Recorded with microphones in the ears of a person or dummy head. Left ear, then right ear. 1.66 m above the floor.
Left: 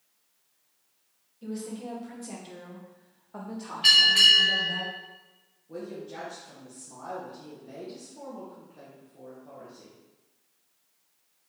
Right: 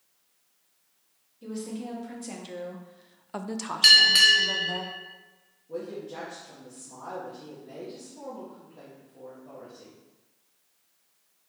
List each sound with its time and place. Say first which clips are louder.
1.4 s a woman speaking: right 1 dB; 5° left (ahead or behind), 1.4 m; by 4.8 s 45° right (ahead or behind), 1.2 m
3.8 s a bell: right 1 dB; 50° right (ahead or behind), 1.1 m
5.7 s a woman speaking: right 3 dB; 15° left (ahead or behind), 1.2 m